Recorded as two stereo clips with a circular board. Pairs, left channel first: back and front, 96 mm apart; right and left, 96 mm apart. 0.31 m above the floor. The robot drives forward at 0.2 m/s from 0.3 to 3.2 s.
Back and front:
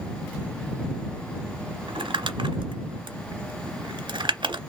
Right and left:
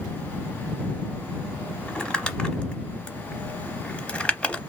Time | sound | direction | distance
1.9 | crumpling | 10° right | 0.9 m